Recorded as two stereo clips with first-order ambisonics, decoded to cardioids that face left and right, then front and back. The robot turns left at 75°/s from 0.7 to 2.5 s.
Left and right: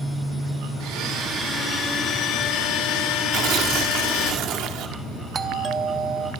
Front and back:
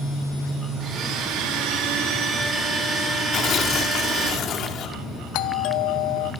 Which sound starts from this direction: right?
A blender, at 0.8 s.